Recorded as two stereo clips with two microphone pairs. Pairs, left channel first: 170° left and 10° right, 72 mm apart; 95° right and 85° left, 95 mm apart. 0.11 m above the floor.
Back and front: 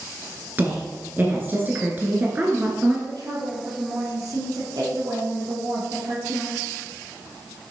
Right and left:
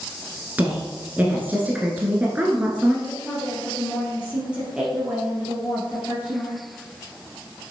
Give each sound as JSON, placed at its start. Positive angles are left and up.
{"t": 0.6, "sound": "a woman speaking", "azimuth_deg": 25, "distance_m": 1.3}
{"t": 3.1, "sound": "a woman speaking", "azimuth_deg": 5, "distance_m": 3.5}